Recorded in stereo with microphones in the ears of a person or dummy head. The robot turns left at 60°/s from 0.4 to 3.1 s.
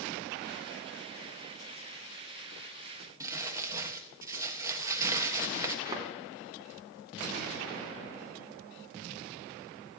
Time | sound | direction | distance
3.2 | crumpling | 20° right (ahead or behind) | 1.3 m
5.8 | a thud | 25° right (ahead or behind) | 3 m